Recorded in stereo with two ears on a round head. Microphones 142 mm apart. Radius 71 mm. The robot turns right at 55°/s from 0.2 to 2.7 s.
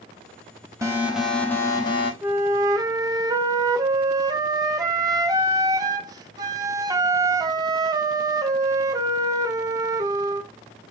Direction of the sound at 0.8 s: 25° right.